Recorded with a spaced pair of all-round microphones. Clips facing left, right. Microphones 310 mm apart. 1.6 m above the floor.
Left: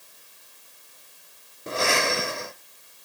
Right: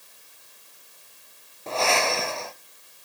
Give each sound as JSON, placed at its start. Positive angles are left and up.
{"t": 1.7, "sound": "breathing", "side_deg": 20, "distance_m": 0.7}